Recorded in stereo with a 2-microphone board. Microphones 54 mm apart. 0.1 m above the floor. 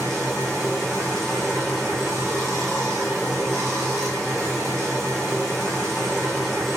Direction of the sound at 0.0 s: 5° left (ahead or behind).